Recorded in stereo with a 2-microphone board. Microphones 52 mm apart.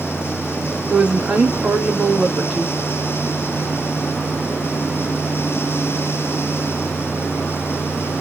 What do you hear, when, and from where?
0.9 s a woman speaking: 35° right (ahead or behind), 1.7 m